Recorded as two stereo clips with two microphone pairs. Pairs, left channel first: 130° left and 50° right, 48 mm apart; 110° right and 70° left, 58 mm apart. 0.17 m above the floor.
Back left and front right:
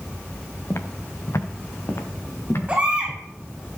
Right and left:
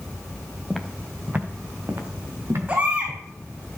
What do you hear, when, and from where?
0.7 s footsteps: 165° left, 1.4 m; by 3.2 s 95° left, 3.5 m
2.7 s a baby crying: 10° left, 5.5 m